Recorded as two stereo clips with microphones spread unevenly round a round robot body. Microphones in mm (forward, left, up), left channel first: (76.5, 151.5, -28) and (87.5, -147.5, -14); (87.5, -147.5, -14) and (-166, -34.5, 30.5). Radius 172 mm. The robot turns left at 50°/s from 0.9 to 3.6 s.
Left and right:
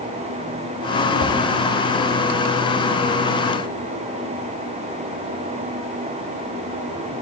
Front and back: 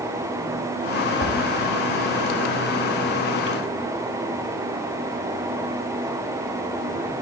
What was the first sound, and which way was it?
A whoosh, 130° left.